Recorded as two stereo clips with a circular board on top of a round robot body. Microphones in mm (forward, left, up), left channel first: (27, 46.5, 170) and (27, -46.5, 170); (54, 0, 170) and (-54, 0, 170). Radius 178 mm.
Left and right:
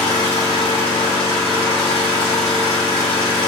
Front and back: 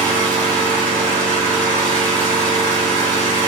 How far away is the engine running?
About 0.8 m.